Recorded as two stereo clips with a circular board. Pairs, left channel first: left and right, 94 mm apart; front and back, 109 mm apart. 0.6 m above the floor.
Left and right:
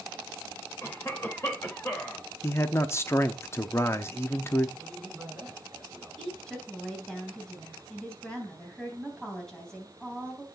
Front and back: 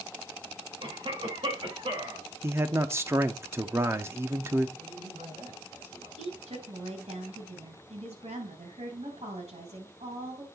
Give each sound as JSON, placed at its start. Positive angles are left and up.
{"t": 0.8, "sound": "a cough", "azimuth_deg": 150, "distance_m": 2.5}
{"t": 2.4, "sound": "a man speaking", "azimuth_deg": 130, "distance_m": 0.6}
{"t": 4.8, "sound": "a man speaking", "azimuth_deg": -175, "distance_m": 5.0}
{"t": 6.2, "sound": "a woman speaking", "azimuth_deg": 175, "distance_m": 3.0}